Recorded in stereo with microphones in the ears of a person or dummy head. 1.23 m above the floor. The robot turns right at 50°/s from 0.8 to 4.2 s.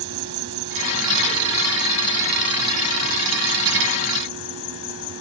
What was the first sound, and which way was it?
An insect, 60° right.